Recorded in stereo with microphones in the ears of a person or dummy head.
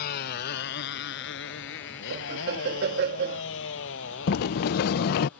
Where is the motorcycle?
55° left (ahead or behind); by 5.4 s 75° left (ahead or behind).